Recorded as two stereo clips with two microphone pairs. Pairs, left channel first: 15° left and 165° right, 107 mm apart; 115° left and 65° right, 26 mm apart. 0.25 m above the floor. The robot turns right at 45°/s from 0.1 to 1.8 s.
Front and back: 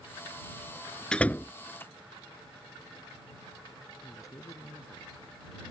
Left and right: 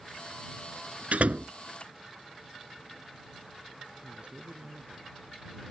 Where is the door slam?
65° right; by 1.5 s 45° right.